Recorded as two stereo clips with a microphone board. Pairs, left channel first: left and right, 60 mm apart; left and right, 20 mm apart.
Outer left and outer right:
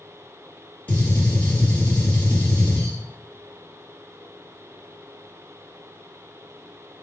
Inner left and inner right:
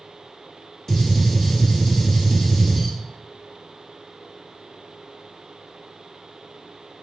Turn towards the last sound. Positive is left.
turn(degrees=25)  # may be behind; listen again after turning